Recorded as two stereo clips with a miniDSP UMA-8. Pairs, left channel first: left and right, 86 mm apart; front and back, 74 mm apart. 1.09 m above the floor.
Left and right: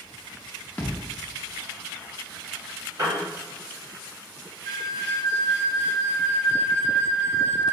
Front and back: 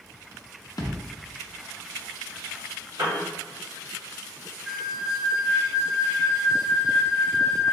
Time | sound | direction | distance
0.8 | a thud | 20° left | 0.6 m
3.0 | a piano | 140° right | 1.4 m
4.7 | a flute | 100° right | 1.8 m